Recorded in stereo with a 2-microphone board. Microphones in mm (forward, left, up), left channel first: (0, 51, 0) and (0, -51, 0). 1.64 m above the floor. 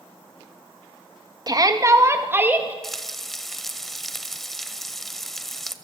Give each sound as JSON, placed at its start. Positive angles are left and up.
{"t": 1.5, "sound": "a shout", "side_deg": -40, "distance_m": 2.5}
{"t": 2.8, "sound": "frying", "side_deg": 5, "distance_m": 1.5}